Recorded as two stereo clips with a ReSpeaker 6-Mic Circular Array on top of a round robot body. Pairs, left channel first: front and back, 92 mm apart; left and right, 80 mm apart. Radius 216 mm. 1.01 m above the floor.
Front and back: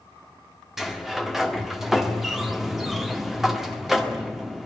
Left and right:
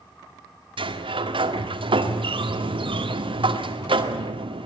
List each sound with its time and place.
0.8 s a sliding door: 95° right, 2 m